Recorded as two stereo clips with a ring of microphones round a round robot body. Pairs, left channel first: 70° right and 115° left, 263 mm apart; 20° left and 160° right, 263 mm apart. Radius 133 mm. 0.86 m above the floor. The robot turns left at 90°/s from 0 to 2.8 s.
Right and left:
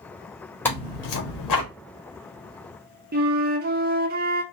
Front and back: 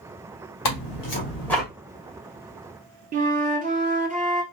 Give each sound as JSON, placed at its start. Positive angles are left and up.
{"t": 0.7, "sound": "tearing paper", "azimuth_deg": 15, "distance_m": 1.4}
{"t": 3.1, "sound": "a flute", "azimuth_deg": 155, "distance_m": 0.7}